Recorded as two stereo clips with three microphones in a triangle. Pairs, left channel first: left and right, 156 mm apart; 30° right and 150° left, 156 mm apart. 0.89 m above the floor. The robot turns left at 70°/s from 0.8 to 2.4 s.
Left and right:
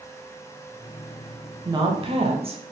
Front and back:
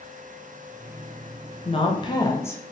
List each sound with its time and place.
1.6 s a woman speaking: 40° right, 0.6 m; by 2.6 s 95° right, 0.6 m